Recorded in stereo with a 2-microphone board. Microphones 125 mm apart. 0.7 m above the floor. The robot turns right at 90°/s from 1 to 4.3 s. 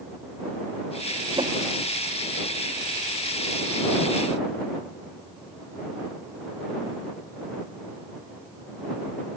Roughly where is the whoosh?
Right.